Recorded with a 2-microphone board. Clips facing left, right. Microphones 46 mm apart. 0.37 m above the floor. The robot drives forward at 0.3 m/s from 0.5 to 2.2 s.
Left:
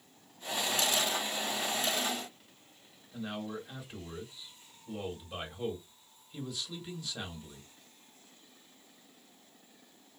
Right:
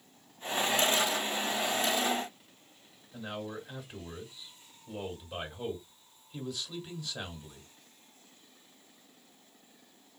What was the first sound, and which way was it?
A man speaking, centre (ahead or behind).